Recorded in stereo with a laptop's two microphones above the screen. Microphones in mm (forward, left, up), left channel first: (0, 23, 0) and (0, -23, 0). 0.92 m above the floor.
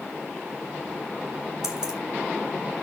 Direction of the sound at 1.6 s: 15° right (ahead or behind).